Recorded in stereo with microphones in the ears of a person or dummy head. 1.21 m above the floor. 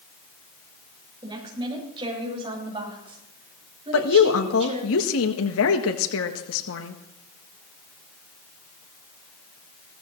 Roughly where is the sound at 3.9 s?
Left.